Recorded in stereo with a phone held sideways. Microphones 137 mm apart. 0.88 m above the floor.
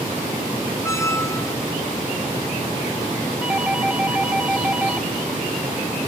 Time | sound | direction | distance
0.8 | a squeak | 20° left (ahead or behind) | 0.8 m
3.4 | a doorbell | 10° right (ahead or behind) | 1.7 m